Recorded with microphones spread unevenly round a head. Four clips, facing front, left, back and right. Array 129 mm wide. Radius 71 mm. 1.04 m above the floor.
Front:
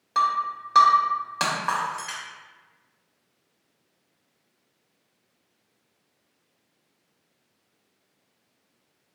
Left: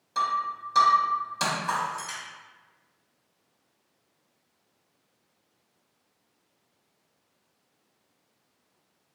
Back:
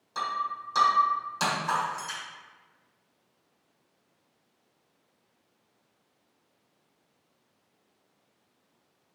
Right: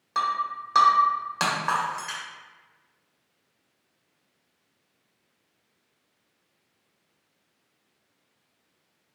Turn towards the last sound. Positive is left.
turn(degrees=-40)